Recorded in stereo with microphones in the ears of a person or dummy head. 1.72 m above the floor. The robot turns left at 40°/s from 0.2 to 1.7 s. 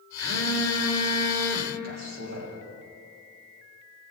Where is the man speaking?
60° right (ahead or behind), 2 m.